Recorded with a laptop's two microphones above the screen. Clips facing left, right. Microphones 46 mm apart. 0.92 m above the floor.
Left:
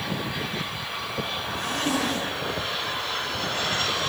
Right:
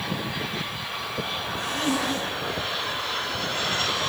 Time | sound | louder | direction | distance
1.5 | a zipper | even | 65° left (ahead or behind) | 8 m